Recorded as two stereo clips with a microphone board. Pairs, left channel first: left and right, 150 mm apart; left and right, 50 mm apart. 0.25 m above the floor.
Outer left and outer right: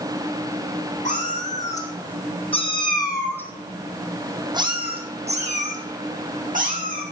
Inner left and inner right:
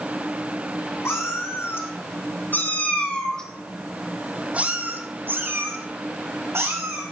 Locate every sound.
1.1 s a cat meowing: 60° left (ahead or behind), 4 m; by 7.0 s 65° right (ahead or behind), 4.5 m